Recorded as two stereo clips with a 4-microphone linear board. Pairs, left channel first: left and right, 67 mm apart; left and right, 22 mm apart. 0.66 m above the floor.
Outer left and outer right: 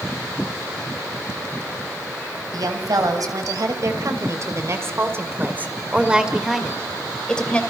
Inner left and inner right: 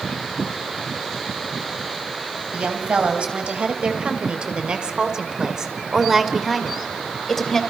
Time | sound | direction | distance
2.5 | a woman speaking | 70° right (ahead or behind) | 4.5 m